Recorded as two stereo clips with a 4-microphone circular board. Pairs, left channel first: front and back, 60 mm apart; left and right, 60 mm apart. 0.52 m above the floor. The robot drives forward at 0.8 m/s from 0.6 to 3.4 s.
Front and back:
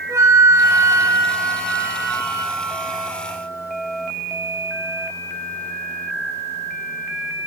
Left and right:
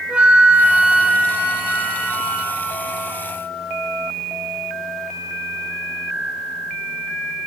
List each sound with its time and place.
0.1 s a flute: 155° right, 0.7 m; by 2.6 s 175° right, 2 m